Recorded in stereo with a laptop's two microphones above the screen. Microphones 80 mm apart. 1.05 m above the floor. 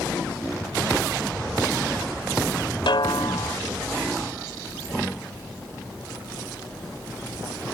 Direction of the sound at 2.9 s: 75° left (ahead or behind).